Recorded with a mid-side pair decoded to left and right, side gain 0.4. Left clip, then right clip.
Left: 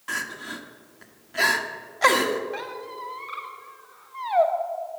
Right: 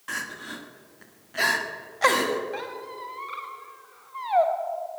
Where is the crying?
10° left, 1.2 m.